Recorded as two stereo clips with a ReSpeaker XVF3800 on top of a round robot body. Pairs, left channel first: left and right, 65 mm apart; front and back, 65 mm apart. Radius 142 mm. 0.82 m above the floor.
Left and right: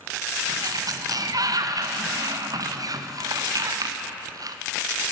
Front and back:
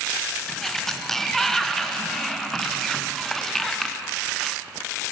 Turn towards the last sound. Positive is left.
turn(degrees=-85)